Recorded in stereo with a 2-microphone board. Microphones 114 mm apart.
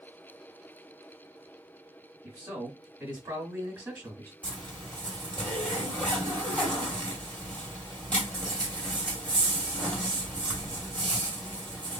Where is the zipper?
10° left (ahead or behind), 1.8 m.